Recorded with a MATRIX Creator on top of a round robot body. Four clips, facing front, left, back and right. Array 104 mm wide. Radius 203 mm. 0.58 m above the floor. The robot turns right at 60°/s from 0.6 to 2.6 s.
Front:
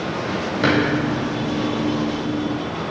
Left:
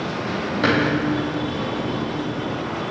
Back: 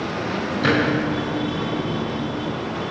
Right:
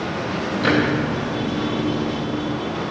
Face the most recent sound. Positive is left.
turn(degrees=150)